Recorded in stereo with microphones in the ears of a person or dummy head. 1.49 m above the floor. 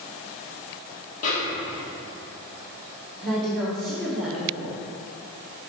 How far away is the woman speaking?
About 1.8 m.